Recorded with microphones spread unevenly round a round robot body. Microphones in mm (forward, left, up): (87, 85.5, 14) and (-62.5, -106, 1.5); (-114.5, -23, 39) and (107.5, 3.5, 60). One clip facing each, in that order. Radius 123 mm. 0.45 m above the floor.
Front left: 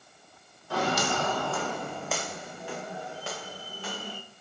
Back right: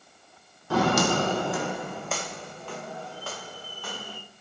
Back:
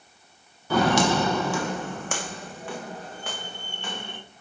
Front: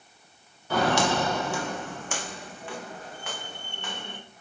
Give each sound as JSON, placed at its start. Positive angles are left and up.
{"t": 0.7, "sound": "footsteps", "azimuth_deg": -160, "distance_m": 1.0}